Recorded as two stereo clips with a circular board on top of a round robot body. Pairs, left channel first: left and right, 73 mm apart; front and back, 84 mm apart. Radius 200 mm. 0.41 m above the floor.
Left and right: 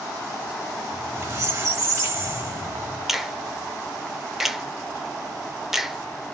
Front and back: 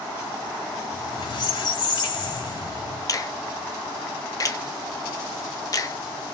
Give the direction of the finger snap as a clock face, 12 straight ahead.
12 o'clock.